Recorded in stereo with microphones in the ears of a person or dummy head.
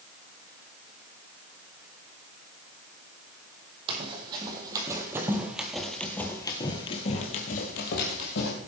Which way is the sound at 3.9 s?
30° right (ahead or behind).